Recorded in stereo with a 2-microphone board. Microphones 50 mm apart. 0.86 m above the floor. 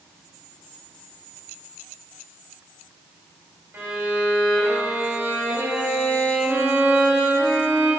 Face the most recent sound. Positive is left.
turn(degrees=-50)  # may be behind; listen again after turning